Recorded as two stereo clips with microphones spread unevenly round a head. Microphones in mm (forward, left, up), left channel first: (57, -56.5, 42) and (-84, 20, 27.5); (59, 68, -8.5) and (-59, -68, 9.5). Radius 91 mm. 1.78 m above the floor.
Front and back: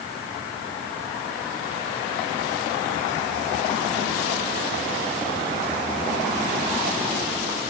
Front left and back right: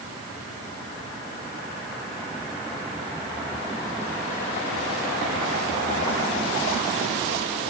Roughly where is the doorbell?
I don't hear a doorbell.